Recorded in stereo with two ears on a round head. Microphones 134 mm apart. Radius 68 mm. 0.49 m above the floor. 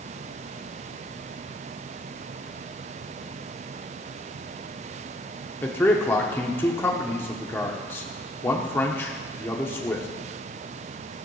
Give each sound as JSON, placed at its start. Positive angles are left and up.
{"t": 5.6, "sound": "a man speaking", "side_deg": 15, "distance_m": 1.0}